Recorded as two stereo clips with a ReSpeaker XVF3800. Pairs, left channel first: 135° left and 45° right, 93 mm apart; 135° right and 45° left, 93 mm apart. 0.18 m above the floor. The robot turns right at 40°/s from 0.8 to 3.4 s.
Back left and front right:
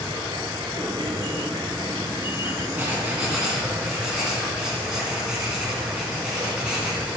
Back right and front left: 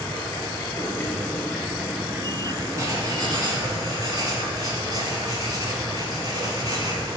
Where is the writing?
10° left, 1.9 m; by 7.2 s 35° left, 1.9 m.